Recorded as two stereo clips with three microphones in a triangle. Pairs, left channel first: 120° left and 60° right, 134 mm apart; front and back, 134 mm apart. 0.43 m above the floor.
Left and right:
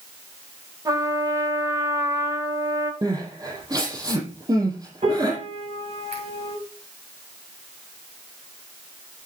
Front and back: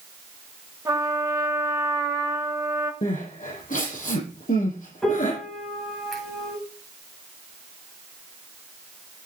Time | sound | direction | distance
0.8 | a trumpet | 120° right | 1.7 m
3.0 | crying | straight ahead | 6.5 m
5.0 | a piano | 90° right | 3 m